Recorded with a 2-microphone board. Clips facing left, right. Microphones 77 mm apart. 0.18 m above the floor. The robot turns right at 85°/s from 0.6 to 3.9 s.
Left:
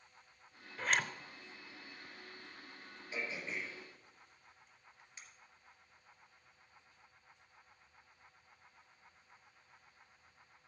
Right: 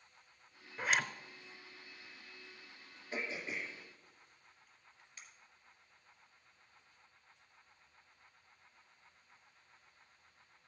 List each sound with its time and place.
0.8 s a zipper: 20° right (ahead or behind), 0.6 m; by 1.1 s 10° left (ahead or behind), 0.6 m
3.1 s throat clearing: 40° right (ahead or behind), 2.5 m; by 5.2 s 25° left (ahead or behind), 2.5 m